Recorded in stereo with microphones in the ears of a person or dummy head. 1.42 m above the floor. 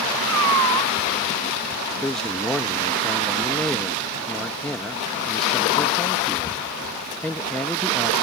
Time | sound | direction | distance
0.3 | a cat meowing | 75° right (ahead or behind) | ?
2.0 | a man speaking | 10° left (ahead or behind) | ?